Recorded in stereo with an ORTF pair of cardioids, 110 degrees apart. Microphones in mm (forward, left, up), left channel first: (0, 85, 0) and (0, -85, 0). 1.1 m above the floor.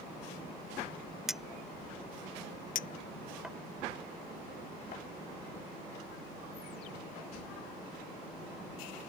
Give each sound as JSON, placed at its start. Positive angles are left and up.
{"t": 1.3, "sound": "a clink", "azimuth_deg": -5}
{"t": 2.8, "sound": "a clink", "azimuth_deg": 55}